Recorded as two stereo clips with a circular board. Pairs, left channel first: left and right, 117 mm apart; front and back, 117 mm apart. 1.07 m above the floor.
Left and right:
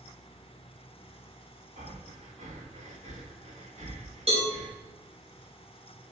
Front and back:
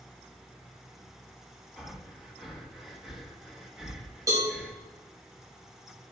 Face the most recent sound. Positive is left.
turn(degrees=-120)